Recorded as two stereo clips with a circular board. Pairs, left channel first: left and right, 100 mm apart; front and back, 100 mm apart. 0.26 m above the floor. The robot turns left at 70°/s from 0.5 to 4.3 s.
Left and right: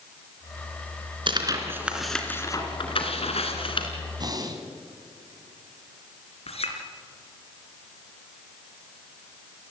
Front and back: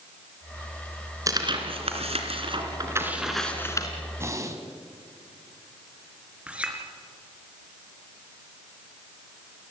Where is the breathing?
120° right, 2.5 m; by 4.6 s 130° right, 2.5 m.